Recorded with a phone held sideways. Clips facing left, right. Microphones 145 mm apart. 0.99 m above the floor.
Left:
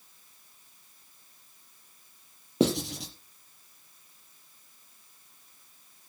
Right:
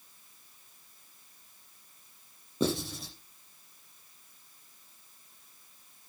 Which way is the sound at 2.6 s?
80° left.